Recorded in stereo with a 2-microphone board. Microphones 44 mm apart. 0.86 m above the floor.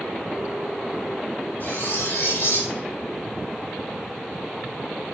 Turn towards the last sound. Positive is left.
turn(degrees=60)  # may be behind; listen again after turning